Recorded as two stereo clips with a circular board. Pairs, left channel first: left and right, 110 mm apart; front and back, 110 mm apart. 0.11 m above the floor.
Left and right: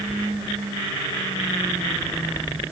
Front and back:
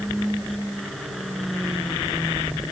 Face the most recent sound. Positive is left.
No sound to turn to.